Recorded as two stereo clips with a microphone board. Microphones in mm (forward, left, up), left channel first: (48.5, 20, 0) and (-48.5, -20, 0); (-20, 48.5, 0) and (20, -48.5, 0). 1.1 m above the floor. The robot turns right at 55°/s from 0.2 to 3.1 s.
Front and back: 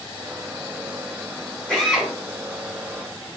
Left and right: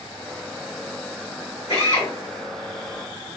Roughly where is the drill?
Left.